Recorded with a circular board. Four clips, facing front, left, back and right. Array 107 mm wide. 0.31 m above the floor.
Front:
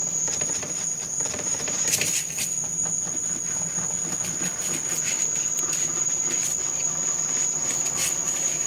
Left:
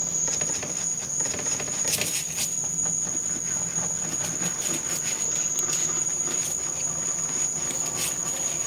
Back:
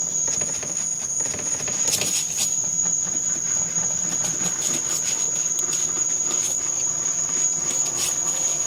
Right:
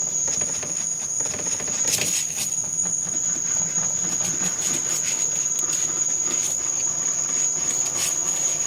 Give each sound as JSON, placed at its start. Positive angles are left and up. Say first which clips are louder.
{"t": 0.0, "sound": "an insect", "louder": "even, even", "azimuth_deg": -115, "distance_m": 0.8}